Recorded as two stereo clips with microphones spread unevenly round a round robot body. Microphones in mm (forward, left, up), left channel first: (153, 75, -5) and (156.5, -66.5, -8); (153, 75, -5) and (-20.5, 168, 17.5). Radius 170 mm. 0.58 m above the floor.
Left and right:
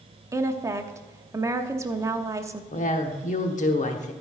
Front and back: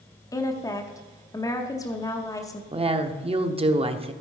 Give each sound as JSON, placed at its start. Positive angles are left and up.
{"t": 0.3, "sound": "a woman speaking", "azimuth_deg": -60, "distance_m": 0.8}
{"t": 2.7, "sound": "a woman speaking", "azimuth_deg": 90, "distance_m": 1.1}